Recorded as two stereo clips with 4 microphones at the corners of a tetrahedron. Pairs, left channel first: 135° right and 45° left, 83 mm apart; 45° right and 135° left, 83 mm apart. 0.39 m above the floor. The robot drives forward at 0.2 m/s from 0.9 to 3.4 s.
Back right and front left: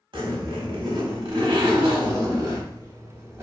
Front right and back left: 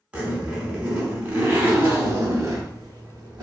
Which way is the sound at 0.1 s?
60° left.